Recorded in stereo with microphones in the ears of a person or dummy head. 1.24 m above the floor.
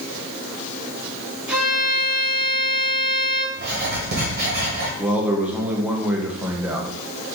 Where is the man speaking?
10° right (ahead or behind), 0.7 m.